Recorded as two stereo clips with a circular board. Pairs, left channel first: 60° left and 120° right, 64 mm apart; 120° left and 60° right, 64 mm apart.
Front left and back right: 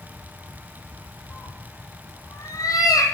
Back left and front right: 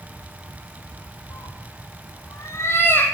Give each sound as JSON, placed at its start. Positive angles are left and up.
{"t": 1.3, "sound": "a cat meowing", "azimuth_deg": 110, "distance_m": 3.0}